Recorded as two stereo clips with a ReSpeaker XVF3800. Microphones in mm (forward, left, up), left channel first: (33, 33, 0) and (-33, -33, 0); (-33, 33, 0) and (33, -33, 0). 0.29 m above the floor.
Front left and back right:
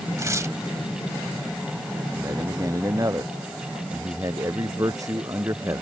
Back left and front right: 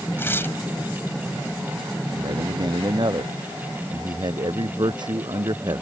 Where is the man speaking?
80° right.